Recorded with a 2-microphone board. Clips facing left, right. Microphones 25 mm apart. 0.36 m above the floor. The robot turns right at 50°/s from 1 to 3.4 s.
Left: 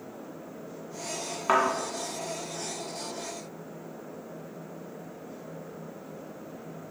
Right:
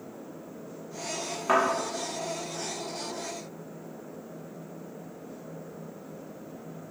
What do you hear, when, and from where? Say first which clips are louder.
1.5 s a thud: even; 15° left (ahead or behind), 1.1 m; by 1.6 s 20° left (ahead or behind), 1.1 m